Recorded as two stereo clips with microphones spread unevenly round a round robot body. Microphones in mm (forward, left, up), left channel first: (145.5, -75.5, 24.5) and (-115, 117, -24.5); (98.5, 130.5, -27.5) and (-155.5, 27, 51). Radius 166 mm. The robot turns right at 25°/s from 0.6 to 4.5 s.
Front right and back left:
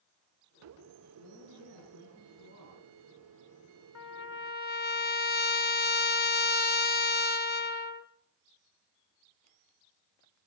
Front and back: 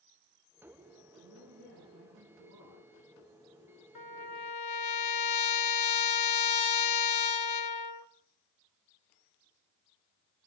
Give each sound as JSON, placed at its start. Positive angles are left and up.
{"t": 1.2, "sound": "a woman speaking", "azimuth_deg": -115, "distance_m": 8.0}
{"t": 4.0, "sound": "a trumpet", "azimuth_deg": 10, "distance_m": 1.3}